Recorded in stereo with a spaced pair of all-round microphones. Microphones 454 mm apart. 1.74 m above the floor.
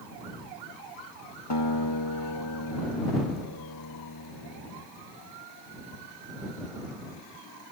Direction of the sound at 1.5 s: 65° left (ahead or behind).